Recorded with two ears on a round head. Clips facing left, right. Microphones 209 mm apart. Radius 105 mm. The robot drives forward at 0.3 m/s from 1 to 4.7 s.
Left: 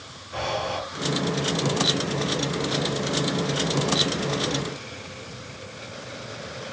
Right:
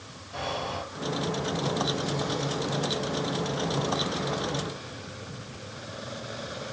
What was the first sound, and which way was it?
Breathing, 75° left (ahead or behind).